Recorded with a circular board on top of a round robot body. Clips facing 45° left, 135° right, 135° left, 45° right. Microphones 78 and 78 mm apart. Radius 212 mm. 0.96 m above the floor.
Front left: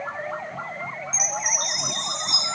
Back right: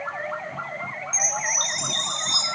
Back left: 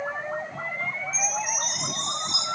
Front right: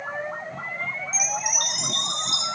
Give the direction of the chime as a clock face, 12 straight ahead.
1 o'clock.